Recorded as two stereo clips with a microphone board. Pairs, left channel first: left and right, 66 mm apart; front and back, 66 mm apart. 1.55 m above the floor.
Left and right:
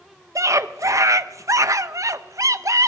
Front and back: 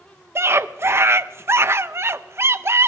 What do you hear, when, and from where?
0.3 s a scream: 125° right, 0.6 m